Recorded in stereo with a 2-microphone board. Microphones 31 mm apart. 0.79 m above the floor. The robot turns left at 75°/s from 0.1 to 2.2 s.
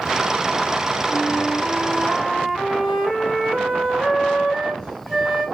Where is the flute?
70° left, 1.9 m; by 5.5 s 15° right, 1.9 m.